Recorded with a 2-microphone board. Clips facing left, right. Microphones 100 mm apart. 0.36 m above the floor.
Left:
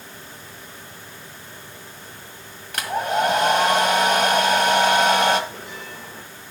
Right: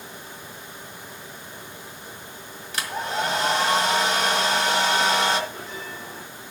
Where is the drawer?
I don't hear a drawer.